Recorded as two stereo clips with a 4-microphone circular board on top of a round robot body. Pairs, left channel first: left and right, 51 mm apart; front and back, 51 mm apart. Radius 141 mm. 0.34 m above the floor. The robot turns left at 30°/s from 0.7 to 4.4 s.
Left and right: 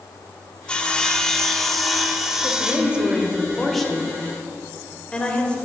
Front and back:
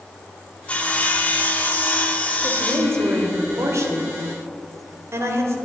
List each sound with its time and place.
0.7 s sawing: 35° left, 1.5 m; by 3.3 s 40° right, 1.5 m
2.4 s a woman speaking: 140° right, 2 m; by 5.6 s 160° left, 2 m